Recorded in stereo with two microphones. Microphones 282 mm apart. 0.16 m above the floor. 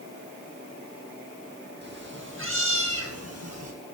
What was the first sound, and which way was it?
A cat meowing, 40° right (ahead or behind).